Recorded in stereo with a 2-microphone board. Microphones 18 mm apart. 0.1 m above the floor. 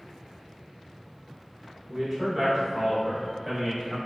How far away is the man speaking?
About 1.1 m.